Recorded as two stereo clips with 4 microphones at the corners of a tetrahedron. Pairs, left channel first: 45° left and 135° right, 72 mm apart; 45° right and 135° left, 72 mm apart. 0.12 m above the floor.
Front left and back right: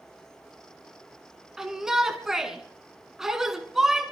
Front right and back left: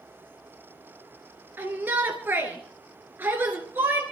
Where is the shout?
150° left, 1.7 m.